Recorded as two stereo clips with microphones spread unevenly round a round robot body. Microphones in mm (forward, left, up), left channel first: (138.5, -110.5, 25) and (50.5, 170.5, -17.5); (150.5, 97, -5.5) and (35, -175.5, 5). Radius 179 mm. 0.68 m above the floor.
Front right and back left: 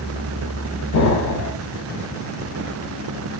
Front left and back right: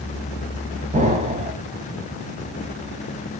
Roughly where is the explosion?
Ahead right.